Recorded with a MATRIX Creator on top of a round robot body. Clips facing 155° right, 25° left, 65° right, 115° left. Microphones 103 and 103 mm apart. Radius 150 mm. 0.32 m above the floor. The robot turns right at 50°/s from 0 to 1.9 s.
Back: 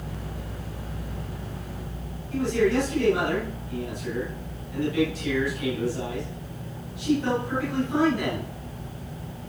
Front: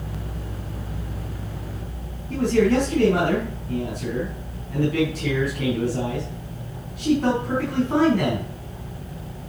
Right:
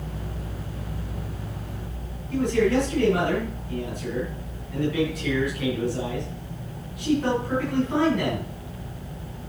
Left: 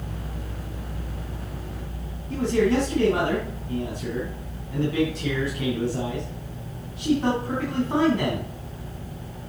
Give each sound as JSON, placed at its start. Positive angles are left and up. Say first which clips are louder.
{"t": 2.3, "sound": "a man speaking", "louder": "front 4 dB, even", "azimuth_deg": 55, "distance_m": 4.0}